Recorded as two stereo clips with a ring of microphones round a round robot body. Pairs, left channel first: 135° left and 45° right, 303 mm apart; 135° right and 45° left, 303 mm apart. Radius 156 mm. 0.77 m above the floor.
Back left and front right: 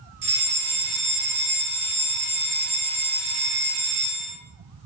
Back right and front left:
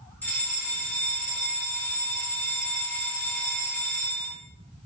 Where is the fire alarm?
50° right, 3 m.